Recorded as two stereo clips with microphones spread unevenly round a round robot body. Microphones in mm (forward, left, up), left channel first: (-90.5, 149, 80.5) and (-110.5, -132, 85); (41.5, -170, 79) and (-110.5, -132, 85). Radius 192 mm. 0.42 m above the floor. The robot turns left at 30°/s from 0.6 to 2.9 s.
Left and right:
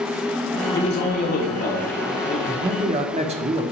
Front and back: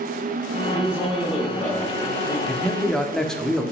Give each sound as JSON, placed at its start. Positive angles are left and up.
{"t": 0.7, "sound": "a man speaking", "azimuth_deg": 95, "distance_m": 1.1}
{"t": 2.5, "sound": "a man speaking", "azimuth_deg": -75, "distance_m": 0.7}